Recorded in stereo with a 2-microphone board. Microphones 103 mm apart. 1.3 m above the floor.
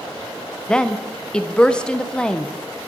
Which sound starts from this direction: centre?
A woman speaking, at 0.7 s.